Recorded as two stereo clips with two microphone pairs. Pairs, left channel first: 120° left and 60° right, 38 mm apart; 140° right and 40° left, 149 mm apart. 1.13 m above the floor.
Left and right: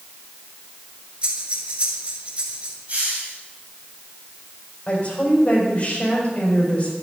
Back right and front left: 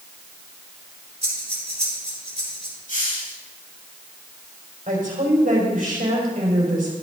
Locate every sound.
1.2 s breathing: 5° right, 5 m
2.9 s a hiss: 115° right, 5.5 m
4.9 s a woman speaking: 65° left, 5 m